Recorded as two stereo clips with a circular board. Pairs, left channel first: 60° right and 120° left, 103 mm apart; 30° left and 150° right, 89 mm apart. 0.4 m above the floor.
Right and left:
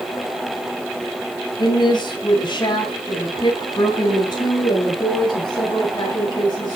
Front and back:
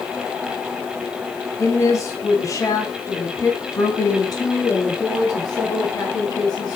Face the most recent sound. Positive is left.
turn(degrees=-10)